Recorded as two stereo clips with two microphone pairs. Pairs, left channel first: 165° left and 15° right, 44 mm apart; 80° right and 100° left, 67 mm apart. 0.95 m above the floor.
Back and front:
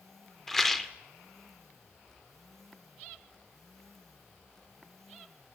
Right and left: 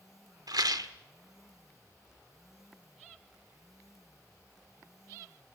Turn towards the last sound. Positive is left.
turn(degrees=85)